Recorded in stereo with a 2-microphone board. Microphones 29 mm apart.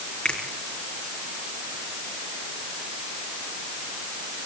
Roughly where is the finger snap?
Left.